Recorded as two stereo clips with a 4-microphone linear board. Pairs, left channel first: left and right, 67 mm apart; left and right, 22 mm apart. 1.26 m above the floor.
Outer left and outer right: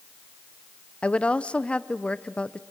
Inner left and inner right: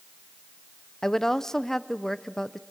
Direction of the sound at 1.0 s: 20° left (ahead or behind).